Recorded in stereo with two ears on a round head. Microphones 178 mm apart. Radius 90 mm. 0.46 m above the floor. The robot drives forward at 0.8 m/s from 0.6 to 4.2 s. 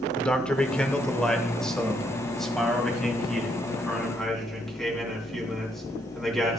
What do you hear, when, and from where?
0.2 s a man speaking: 5° left (ahead or behind), 1.1 m; by 6.6 s centre (ahead or behind), 3.5 m